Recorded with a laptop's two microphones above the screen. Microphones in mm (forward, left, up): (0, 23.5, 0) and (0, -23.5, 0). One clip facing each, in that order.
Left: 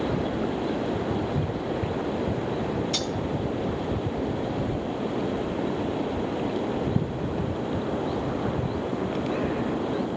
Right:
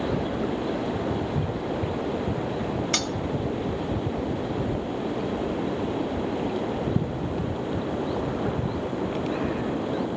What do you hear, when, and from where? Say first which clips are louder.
2.9 s cutlery clinking: right 1 dB; 70° right (ahead or behind), 0.5 m